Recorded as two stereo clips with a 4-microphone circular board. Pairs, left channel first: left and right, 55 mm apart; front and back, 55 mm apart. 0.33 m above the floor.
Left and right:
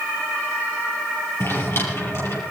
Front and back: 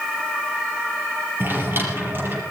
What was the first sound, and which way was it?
A drawer, 130° left.